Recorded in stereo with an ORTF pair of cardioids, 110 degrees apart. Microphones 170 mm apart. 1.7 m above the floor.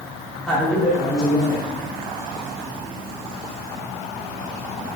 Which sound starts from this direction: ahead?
A man speaking, at 0.5 s.